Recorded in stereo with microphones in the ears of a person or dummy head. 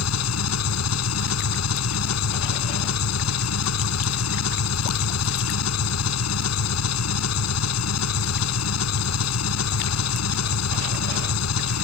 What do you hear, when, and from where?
0.0 s an engine running: 85° left